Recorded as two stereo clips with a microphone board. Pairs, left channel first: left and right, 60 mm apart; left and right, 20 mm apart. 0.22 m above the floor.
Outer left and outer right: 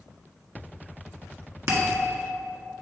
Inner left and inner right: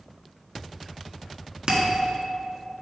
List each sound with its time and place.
1.7 s a bell: 50° right (ahead or behind), 1.5 m